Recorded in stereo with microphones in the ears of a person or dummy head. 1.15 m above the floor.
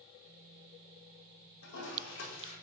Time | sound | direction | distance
1.6 | a toilet flushing | 70° left (ahead or behind) | 4 m